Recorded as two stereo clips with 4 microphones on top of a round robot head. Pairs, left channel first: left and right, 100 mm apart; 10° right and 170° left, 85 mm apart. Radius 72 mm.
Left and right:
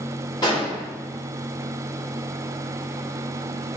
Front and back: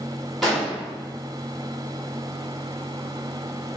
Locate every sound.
0.4 s an explosion: 80° left, 1.5 m